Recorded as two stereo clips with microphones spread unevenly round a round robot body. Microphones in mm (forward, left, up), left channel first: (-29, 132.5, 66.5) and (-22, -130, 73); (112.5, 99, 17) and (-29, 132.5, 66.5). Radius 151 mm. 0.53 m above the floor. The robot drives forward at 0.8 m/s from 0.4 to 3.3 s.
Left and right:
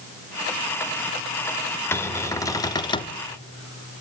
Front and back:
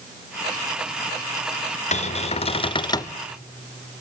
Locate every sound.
1.9 s a cupboard door: 10° left, 1.6 m; by 3.2 s 30° left, 0.8 m